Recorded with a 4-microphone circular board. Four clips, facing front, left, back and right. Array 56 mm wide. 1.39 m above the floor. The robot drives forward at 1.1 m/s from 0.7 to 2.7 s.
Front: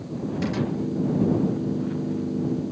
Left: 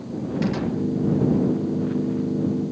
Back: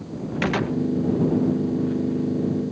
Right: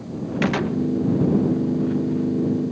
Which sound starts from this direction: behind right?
A gunshot, at 0.4 s.